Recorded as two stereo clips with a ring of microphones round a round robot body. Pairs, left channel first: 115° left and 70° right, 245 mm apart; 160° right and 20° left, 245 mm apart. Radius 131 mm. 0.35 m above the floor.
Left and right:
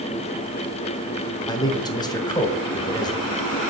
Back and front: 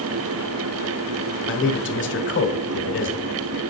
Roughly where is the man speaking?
Behind.